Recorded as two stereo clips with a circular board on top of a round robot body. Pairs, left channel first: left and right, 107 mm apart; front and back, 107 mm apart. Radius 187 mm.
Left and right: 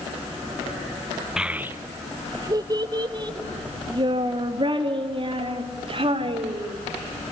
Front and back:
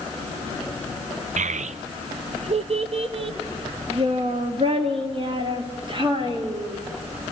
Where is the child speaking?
175° right, 0.7 m; by 6.8 s 130° right, 4 m.